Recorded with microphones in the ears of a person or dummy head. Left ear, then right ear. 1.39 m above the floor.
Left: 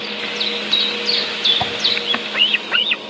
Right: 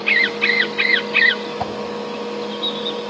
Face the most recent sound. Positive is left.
turn(degrees=10)  # may be behind; listen again after turning